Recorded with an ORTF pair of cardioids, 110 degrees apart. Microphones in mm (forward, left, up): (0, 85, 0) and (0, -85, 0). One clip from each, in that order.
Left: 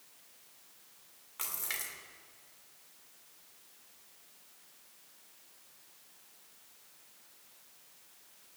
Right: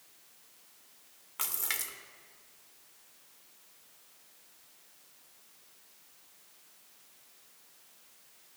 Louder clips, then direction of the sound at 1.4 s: Right 3 dB; 25° right.